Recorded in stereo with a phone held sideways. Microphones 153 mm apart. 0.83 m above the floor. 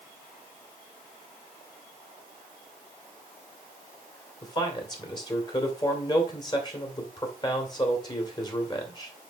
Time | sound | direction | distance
4.4 | a man speaking | 30° left (ahead or behind) | 2.5 m